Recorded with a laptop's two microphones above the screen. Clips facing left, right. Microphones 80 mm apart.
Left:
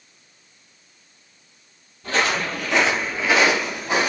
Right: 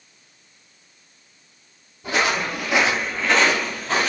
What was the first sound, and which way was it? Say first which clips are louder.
Footsteps: even; 10° right (ahead or behind).